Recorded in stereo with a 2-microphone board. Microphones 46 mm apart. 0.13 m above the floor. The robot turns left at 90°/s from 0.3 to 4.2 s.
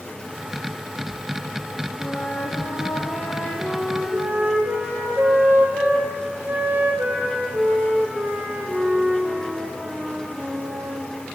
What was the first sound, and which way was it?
A flute, 155° left.